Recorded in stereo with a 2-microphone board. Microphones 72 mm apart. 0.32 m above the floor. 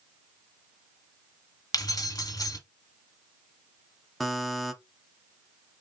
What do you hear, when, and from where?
1.7 s keys jangling: 60° left (ahead or behind), 1.1 m
4.2 s a buzzer: centre (ahead or behind), 0.6 m